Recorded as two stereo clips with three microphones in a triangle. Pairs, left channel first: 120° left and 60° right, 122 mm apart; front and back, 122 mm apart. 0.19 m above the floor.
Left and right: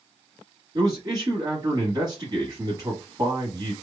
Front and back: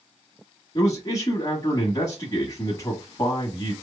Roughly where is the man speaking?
Ahead right.